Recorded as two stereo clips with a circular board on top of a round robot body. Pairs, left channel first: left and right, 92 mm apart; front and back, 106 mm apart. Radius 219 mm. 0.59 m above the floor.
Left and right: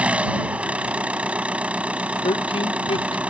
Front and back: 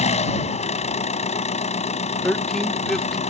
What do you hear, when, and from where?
0.0 s an engine running: 15° right
2.2 s a man speaking: 85° left